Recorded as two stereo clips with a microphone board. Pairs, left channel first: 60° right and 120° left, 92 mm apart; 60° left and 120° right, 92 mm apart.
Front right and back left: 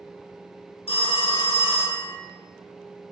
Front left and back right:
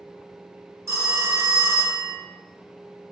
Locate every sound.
0.9 s a phone ringing: 60° right, 0.7 m